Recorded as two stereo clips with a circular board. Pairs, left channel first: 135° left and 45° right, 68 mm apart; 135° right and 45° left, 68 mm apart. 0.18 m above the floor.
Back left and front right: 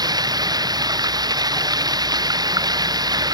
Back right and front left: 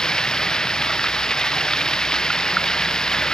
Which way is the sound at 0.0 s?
55° right.